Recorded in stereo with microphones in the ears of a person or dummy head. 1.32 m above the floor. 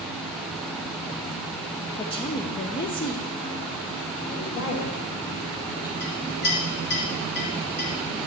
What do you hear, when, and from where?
2.0 s a woman speaking: 30° left (ahead or behind), 1.0 m
4.3 s a woman speaking: 85° left, 2 m
6.0 s a clink: 75° left (ahead or behind), 3.5 m